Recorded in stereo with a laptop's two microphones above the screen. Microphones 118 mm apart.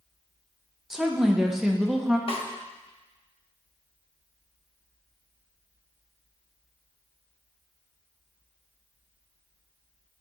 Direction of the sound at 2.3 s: 55° left (ahead or behind).